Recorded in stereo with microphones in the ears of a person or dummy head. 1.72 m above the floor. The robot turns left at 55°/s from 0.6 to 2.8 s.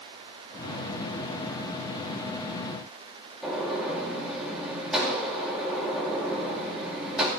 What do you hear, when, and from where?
3.4 s a gunshot: 5° right (ahead or behind), 4 m